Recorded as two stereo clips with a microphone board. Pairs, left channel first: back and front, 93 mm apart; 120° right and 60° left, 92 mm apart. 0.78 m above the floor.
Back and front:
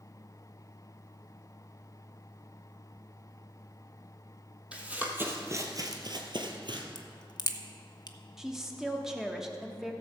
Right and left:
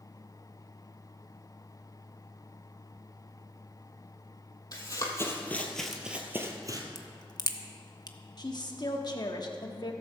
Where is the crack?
150° right, 0.7 m.